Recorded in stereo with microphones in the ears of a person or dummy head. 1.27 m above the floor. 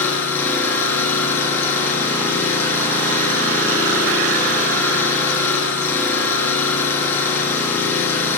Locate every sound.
0.0 s an engine running: 15° left (ahead or behind), 6.5 m